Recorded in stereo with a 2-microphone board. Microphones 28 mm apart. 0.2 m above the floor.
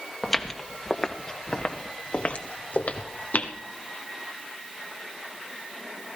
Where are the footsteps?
10° left (ahead or behind), 1.5 m; by 3.5 s 70° left (ahead or behind), 1.8 m.